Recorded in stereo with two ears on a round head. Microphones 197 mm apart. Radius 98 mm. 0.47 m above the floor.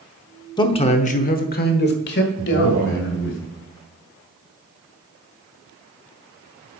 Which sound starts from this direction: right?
A man speaking, at 2.4 s.